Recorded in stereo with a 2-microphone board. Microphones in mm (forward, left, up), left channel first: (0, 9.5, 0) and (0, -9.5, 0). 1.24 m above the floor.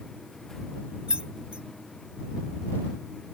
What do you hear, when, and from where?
1.1 s keys jangling: 80° right